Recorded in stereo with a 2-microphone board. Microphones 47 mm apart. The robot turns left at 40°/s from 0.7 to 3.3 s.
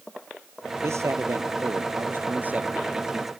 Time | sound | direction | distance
0.8 | a man speaking | 75° right | ?